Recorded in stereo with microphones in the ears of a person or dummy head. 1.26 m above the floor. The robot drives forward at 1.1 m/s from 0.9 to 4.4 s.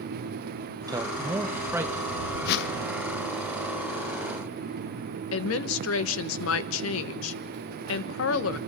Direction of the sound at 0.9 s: 20° right (ahead or behind).